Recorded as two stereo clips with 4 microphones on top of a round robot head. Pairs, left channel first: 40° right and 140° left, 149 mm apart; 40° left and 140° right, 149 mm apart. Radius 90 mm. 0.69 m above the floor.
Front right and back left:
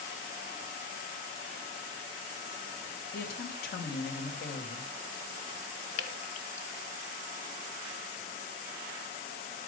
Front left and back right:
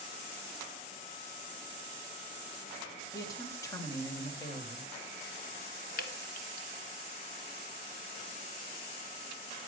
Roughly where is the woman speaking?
Ahead right.